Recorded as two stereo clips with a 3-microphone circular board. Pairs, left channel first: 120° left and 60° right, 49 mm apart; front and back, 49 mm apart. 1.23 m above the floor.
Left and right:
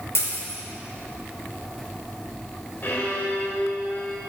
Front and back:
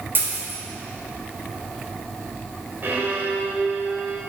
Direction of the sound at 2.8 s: 155° left.